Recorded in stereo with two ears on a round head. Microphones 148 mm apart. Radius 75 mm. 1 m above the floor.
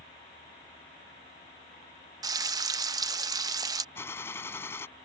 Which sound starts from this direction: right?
Frying, at 2.2 s.